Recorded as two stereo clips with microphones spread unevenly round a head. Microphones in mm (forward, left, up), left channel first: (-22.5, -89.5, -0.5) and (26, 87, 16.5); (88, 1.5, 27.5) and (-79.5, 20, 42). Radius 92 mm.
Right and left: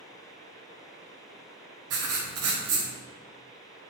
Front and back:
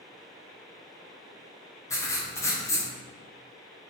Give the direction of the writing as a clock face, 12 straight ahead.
10 o'clock.